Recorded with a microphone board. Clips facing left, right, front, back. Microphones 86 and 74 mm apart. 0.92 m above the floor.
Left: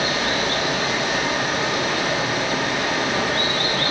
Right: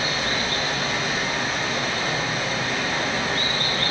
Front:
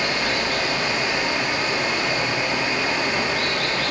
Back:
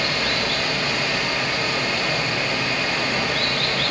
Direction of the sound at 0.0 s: 70° left.